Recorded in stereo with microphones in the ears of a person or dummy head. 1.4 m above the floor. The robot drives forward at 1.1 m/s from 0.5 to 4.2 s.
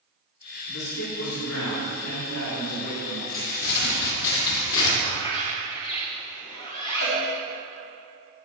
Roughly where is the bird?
Left.